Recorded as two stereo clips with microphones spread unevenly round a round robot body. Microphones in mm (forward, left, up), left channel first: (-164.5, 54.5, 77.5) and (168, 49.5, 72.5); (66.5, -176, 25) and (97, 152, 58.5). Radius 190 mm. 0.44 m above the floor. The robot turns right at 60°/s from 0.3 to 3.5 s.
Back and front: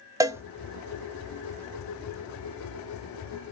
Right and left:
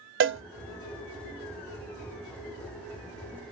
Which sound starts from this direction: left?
A cowbell, at 0.2 s.